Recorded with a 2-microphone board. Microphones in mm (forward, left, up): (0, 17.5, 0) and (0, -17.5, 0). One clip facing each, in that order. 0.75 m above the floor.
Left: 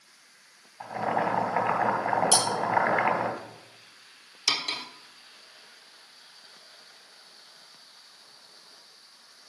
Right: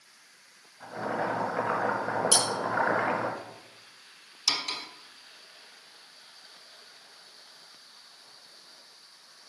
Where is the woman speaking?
I don't hear a woman speaking.